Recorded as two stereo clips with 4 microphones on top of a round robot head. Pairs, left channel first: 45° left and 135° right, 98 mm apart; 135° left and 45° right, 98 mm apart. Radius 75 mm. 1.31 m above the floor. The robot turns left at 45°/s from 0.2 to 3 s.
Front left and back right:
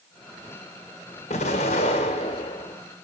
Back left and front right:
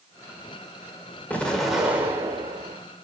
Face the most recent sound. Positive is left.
turn(degrees=-15)